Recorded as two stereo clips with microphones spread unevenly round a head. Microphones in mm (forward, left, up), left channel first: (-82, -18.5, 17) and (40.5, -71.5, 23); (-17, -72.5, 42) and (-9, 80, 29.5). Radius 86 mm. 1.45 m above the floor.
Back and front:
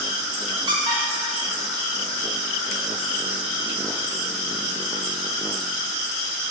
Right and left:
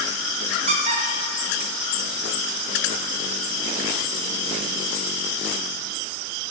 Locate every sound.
0.7 s a squeak: 35° left, 0.6 m